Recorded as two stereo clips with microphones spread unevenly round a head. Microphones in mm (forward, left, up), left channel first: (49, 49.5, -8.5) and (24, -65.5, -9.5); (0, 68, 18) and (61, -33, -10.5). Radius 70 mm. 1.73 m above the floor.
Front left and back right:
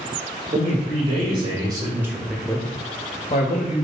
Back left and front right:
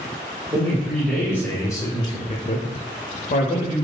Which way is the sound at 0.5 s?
150° right.